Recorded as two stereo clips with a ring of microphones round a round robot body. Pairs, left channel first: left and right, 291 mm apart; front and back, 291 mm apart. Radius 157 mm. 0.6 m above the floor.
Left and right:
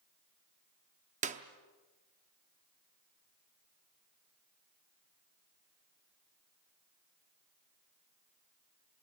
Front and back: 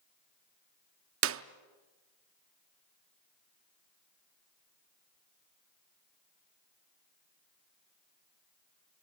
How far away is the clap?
About 0.7 m.